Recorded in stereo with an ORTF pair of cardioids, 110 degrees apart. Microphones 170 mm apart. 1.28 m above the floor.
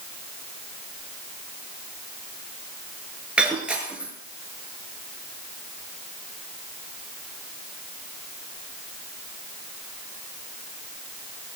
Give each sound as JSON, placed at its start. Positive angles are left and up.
{"t": 3.4, "sound": "breaking glass", "azimuth_deg": -5, "distance_m": 5.5}